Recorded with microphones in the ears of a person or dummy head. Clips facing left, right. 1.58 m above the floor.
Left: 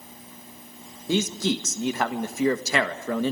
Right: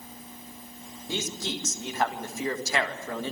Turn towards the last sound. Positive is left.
turn(degrees=60)  # may be behind; listen again after turning